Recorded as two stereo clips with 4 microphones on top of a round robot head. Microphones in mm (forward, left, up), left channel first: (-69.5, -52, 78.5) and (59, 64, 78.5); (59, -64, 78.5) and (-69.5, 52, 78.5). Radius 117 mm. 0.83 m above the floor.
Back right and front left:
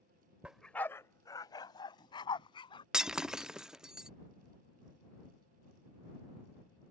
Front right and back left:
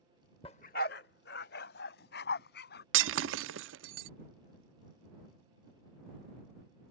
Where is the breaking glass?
130° left.